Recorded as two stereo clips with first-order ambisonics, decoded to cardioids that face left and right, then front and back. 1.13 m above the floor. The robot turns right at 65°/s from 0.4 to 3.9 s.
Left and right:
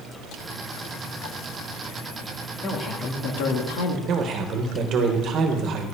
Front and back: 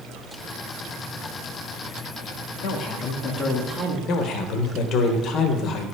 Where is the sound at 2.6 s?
15° left, 1.8 m; by 4.0 s 100° left, 1.8 m.